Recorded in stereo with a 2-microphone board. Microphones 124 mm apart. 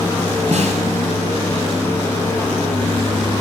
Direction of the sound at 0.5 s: 60° right (ahead or behind).